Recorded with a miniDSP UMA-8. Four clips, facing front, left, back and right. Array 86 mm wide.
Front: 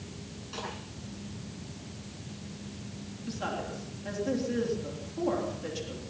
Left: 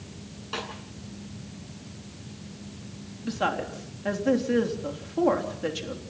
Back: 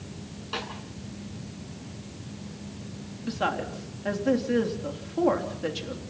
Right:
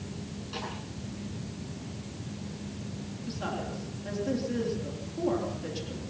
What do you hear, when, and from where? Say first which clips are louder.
0.5 s a snare drum: left 4 dB, back 4 dB; 135° left, 9.5 m
3.2 s a woman speaking: left 8 dB, back 6 dB; 130° left, 3.5 m